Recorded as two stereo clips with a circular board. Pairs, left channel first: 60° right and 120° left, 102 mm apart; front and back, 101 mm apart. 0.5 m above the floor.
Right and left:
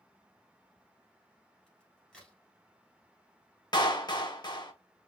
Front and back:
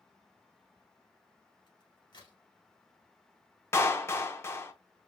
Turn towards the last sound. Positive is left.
turn(degrees=-50)